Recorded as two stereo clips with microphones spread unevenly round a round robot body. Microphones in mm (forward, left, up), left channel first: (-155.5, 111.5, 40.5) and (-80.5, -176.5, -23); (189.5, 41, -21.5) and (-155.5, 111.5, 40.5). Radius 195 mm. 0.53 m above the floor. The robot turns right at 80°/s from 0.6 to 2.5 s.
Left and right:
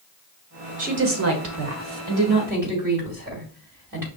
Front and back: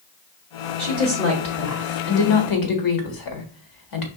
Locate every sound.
0.8 s a woman speaking: 135° right, 1.6 m; by 4.1 s 5° left, 1.6 m